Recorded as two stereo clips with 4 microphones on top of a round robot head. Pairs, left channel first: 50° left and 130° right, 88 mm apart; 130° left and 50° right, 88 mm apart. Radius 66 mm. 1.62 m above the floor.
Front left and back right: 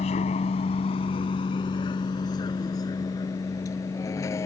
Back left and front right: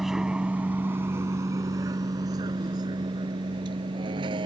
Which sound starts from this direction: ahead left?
A vehicle, at 0.0 s.